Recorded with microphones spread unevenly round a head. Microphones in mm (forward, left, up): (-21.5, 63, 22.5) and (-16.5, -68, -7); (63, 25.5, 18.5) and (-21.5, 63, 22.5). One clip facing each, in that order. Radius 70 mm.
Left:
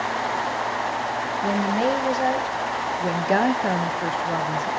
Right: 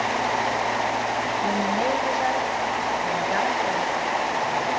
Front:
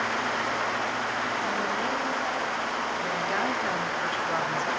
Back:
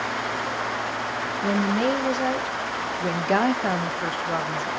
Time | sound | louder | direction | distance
1.4 | a woman speaking | left 3 dB, back 6 dB | 160° left | 2.0 m